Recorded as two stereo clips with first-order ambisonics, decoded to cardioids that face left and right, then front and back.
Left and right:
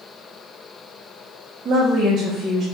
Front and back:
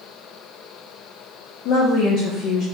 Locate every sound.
1.6 s a woman speaking: 20° right, 0.7 m